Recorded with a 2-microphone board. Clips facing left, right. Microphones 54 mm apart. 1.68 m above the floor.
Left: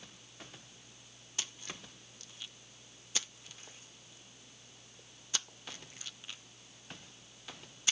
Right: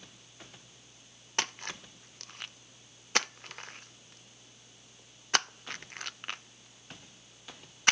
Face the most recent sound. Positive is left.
turn(degrees=-60)  # may be behind; listen again after turning